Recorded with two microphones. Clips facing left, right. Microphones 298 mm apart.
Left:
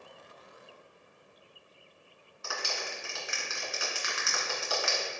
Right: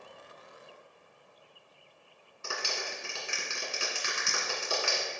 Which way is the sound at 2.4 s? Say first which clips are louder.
Right 1 dB; 30° right (ahead or behind).